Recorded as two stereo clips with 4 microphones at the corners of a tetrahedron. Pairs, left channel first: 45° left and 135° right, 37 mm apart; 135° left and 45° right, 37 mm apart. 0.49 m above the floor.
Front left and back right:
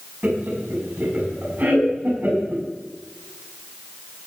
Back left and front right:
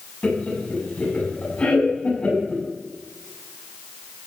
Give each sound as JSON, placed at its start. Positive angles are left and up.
{"t": 0.2, "sound": "laughter", "azimuth_deg": -175, "distance_m": 5.5}